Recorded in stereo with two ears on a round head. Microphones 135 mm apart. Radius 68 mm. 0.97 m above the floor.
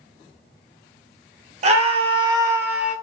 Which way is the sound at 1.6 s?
45° right (ahead or behind).